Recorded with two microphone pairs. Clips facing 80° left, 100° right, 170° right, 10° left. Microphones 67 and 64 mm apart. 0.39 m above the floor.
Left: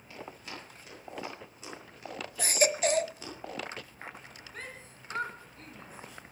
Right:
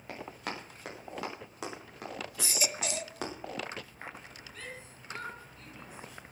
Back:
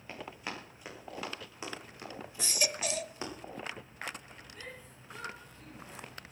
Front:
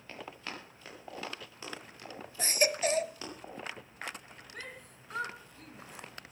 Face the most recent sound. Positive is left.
turn(degrees=35)